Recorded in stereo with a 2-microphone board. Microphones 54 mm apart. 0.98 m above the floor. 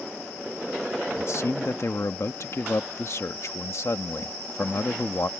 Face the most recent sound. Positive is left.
turn(degrees=60)  # may be behind; listen again after turning